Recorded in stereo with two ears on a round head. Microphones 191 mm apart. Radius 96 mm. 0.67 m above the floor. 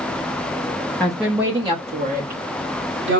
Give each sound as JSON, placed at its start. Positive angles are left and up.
{"t": 1.0, "sound": "a woman speaking", "side_deg": 5, "distance_m": 0.8}